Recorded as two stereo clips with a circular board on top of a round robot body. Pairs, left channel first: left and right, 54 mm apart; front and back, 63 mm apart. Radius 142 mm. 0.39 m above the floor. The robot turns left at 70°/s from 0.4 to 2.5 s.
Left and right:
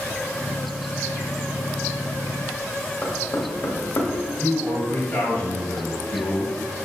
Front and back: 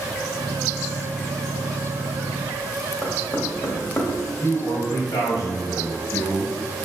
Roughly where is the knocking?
Ahead left.